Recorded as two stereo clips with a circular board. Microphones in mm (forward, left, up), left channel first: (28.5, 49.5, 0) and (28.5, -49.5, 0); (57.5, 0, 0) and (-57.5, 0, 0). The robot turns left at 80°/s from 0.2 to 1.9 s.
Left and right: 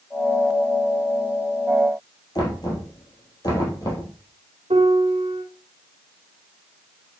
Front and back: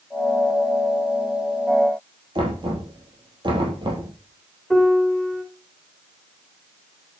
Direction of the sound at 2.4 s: 140° left.